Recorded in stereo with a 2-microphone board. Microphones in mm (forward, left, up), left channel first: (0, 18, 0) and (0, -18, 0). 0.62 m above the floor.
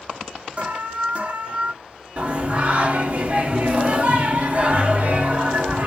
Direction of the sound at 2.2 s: 45° right (ahead or behind).